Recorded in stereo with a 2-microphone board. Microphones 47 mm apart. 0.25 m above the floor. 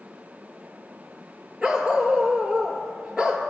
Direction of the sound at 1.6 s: 15° right (ahead or behind).